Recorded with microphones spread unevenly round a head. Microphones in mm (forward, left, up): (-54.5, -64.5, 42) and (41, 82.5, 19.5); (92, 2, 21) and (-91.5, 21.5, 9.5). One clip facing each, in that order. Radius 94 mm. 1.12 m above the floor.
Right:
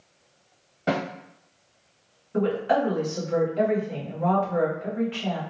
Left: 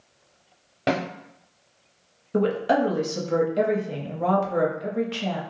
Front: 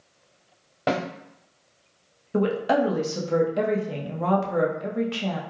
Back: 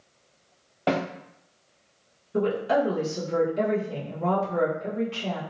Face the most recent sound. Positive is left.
turn(degrees=15)